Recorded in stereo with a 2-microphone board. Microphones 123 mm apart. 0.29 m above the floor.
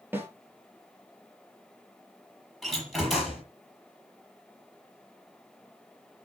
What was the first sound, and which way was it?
A snare drum, 15° right (ahead or behind).